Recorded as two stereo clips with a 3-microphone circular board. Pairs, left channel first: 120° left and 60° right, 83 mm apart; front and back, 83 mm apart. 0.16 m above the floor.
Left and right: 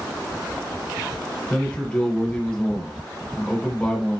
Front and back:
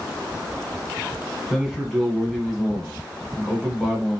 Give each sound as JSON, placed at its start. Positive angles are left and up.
{"t": 1.5, "sound": "a man speaking", "azimuth_deg": 85, "distance_m": 1.5}